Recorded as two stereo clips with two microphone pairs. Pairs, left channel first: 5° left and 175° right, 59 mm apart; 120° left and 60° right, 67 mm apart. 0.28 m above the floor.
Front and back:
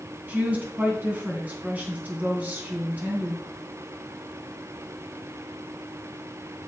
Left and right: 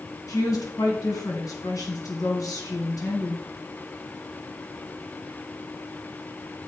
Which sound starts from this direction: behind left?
A woman speaking, at 0.3 s.